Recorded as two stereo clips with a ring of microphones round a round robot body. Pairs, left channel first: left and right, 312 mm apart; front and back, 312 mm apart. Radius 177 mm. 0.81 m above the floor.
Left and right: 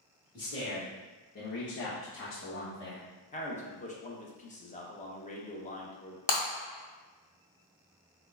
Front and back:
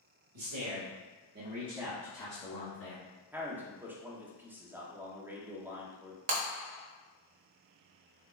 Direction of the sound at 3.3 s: 105° left.